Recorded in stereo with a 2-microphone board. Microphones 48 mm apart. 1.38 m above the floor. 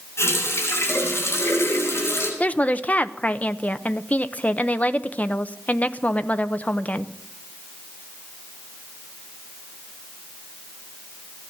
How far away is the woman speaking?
About 0.7 m.